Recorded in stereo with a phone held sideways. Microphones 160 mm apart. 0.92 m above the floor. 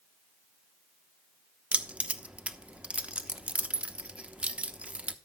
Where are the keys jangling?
5° right (ahead or behind), 1.0 m.